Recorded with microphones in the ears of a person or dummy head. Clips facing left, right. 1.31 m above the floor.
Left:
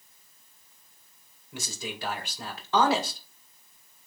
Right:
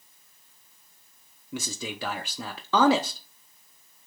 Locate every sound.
1.5 s a man speaking: 60° right (ahead or behind), 0.6 m